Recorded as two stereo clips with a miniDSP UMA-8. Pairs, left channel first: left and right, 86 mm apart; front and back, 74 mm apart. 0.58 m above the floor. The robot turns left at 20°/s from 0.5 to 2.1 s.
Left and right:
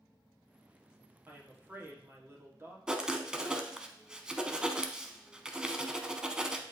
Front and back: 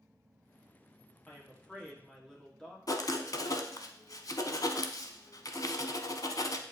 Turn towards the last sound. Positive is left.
turn(degrees=-10)